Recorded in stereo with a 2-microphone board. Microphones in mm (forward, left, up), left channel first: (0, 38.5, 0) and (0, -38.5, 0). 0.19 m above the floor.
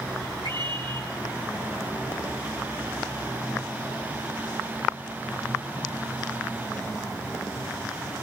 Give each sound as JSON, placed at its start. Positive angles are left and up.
{"t": 0.4, "sound": "a scream", "side_deg": -70, "distance_m": 5.0}